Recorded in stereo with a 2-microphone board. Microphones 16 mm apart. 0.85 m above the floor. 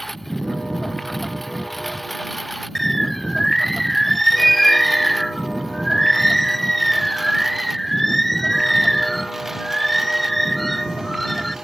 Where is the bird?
15° left (ahead or behind).